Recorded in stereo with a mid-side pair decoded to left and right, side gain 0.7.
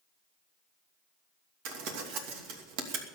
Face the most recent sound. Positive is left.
turn(degrees=-70)